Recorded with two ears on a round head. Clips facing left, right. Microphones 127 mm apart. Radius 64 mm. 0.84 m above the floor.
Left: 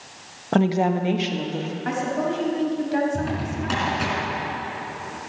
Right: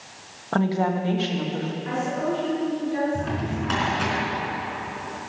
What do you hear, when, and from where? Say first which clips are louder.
0.5 s a woman speaking: left 3 dB; 25° left (ahead or behind), 1.0 m; by 1.8 s 15° left (ahead or behind), 1.8 m
1.9 s a woman speaking: left 2 dB; 85° left, 4.5 m
3.1 s a drawer: left 1 dB; 5° left (ahead or behind), 4 m